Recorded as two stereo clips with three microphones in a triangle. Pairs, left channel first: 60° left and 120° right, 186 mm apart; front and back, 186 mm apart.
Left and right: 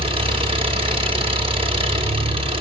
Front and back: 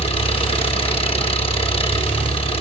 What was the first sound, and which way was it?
An engine running, 60° right.